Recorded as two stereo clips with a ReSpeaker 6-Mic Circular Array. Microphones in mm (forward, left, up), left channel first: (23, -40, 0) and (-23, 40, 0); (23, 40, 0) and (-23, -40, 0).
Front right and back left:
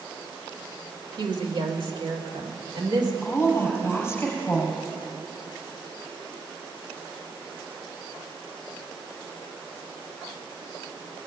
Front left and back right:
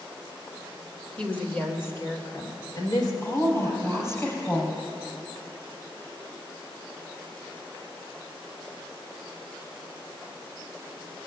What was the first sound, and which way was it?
A woman speaking, 135° left.